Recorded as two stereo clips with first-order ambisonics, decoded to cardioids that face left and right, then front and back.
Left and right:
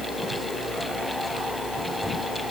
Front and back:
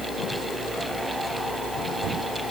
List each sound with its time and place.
Only background noise.